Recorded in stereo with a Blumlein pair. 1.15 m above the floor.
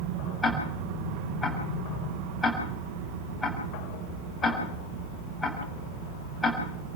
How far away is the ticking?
About 7.5 m.